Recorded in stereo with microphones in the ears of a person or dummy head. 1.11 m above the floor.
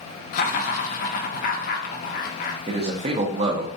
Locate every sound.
0.3 s laughter: 50° left (ahead or behind), 0.7 m
2.7 s a man speaking: 35° right (ahead or behind), 0.6 m